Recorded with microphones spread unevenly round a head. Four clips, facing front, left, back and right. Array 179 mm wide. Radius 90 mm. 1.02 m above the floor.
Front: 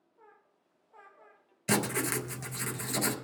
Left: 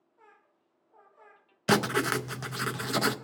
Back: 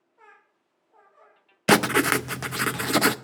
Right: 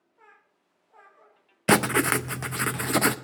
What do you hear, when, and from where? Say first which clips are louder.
1.7 s writing: right 4 dB, back 11 dB; 145° right, 0.5 m